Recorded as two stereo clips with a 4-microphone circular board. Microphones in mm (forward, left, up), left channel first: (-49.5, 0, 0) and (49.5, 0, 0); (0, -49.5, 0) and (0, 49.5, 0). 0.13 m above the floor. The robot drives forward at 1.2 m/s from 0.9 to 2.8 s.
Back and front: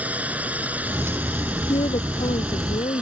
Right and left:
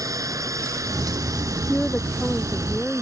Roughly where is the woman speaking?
Behind.